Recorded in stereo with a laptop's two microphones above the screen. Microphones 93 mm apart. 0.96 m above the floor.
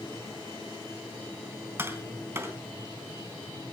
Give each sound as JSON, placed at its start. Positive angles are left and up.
{"t": 1.8, "sound": "tapping", "side_deg": -25, "distance_m": 3.5}